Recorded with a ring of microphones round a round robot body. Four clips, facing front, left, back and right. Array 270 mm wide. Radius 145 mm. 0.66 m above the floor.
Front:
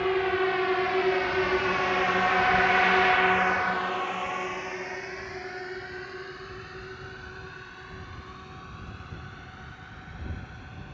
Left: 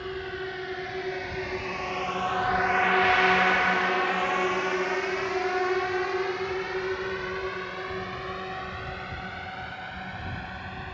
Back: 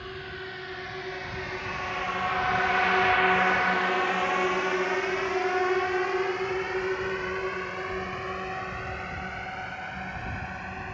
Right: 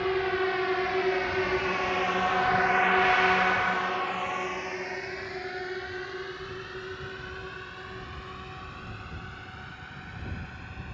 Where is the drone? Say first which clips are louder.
Right 7 dB, front 14 dB; 25° right; by 10.9 s 145° left.